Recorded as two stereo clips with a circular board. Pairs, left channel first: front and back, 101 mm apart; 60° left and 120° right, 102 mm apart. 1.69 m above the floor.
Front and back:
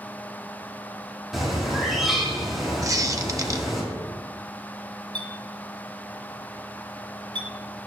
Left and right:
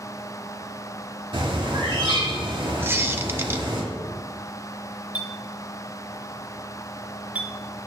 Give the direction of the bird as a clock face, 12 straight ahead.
3 o'clock.